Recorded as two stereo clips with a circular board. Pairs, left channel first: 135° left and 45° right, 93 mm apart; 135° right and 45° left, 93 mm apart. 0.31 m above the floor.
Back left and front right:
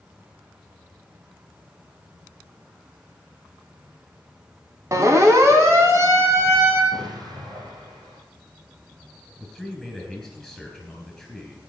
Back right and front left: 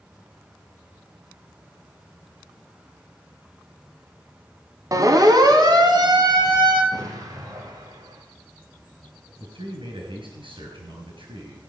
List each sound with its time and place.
4.9 s a siren: 5° left, 2 m; by 6.8 s 15° left, 4.5 m
6.9 s an explosion: straight ahead, 3.5 m
9.4 s a man speaking: 40° left, 5 m